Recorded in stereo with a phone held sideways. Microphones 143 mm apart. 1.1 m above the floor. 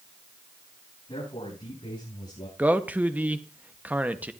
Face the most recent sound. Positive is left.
turn(degrees=-10)  # may be behind; listen again after turning